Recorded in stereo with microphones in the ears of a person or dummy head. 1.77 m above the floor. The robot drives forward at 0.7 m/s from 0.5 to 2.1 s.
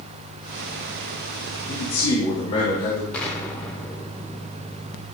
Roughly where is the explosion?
Centre.